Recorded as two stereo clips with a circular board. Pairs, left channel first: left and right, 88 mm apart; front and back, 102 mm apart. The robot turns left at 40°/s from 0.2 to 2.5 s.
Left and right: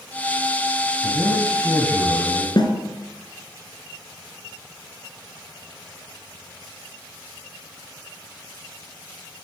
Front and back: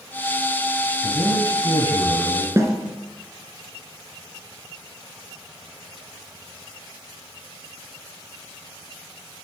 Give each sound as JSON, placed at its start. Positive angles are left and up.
{"t": 1.0, "sound": "a man speaking", "azimuth_deg": 45, "distance_m": 1.9}
{"t": 2.6, "sound": "a snare drum", "azimuth_deg": 120, "distance_m": 2.0}